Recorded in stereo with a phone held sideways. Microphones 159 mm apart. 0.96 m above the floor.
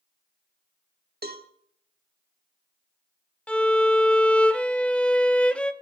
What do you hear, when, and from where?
1.2 s a cowbell: 80° right, 1.2 m
3.5 s a violin: 5° left (ahead or behind), 0.8 m